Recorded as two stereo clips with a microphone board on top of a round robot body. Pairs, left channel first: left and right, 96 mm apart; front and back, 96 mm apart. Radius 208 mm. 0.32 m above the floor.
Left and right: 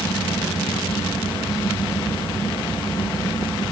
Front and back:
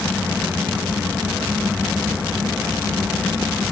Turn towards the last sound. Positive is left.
No sound to turn to.